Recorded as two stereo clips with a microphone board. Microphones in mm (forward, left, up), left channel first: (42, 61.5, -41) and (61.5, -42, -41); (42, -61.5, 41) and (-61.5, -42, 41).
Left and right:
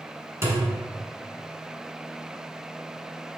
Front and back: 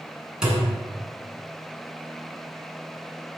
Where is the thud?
110° right, 1.3 m.